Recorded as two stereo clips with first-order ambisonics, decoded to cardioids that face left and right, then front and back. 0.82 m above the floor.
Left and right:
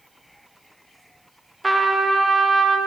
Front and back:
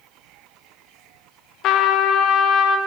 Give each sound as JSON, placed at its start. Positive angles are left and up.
{"t": 1.6, "sound": "a trumpet", "azimuth_deg": -10, "distance_m": 0.6}